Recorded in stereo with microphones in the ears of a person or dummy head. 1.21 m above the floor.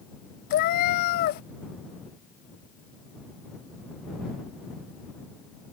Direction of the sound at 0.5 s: 50° left (ahead or behind).